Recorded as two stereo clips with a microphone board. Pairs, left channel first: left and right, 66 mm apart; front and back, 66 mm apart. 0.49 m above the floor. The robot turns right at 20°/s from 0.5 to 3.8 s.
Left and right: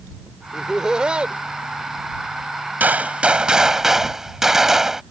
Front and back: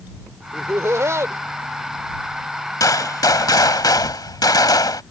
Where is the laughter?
170° right; by 1.4 s 155° right.